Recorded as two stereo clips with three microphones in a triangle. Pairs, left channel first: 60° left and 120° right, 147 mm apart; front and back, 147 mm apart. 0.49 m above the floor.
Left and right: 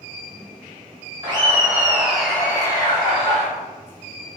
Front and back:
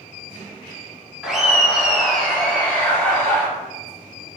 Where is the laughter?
100° right, 1.1 m; by 3.5 s 70° left, 1.2 m.